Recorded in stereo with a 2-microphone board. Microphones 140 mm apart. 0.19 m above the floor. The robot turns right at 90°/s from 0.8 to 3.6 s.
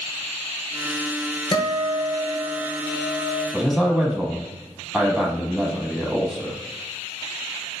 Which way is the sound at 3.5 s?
5° right (ahead or behind).